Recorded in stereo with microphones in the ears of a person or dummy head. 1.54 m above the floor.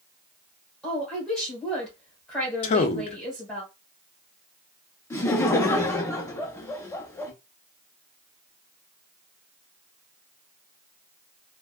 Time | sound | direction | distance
0.8 | a woman speaking | 5° left (ahead or behind) | 1.6 m
2.6 | a man speaking | 40° left (ahead or behind) | 0.6 m
5.1 | laughter | 15° left (ahead or behind) | 0.7 m